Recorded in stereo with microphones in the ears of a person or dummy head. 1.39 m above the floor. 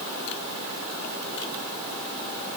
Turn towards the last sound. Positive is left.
No sound to turn to.